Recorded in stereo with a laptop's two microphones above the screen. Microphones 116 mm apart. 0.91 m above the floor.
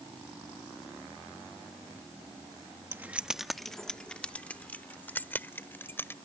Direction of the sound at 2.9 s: 20° right (ahead or behind).